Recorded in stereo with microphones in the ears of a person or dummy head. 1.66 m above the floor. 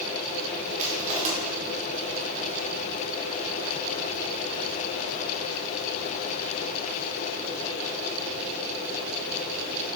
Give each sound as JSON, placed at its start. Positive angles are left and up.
{"t": 0.8, "sound": "crushing", "side_deg": -35, "distance_m": 1.2}